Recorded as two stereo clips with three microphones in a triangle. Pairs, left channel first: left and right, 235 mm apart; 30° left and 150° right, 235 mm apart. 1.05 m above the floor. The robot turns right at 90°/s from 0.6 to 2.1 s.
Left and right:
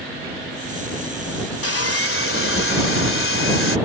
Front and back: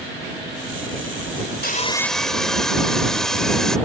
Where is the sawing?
75° left; by 3.8 s 120° left.